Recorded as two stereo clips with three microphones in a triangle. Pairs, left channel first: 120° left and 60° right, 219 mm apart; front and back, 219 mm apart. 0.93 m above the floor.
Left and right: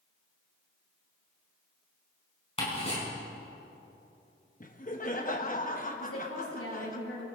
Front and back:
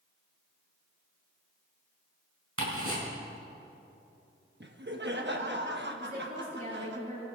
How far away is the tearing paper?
No tearing paper in this recording.